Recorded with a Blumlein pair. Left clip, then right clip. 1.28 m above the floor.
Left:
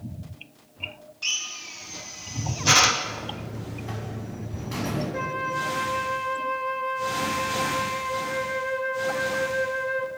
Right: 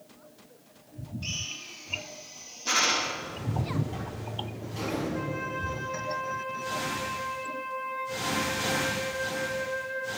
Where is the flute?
25° left, 1.5 m.